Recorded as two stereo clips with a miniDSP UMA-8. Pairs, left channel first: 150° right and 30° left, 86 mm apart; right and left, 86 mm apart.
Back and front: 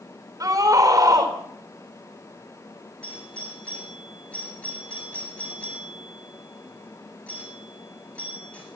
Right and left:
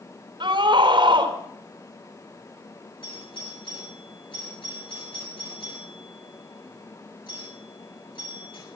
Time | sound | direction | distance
0.4 | a scream | 80° left | 4 m
3.0 | a doorbell | 75° right | 8 m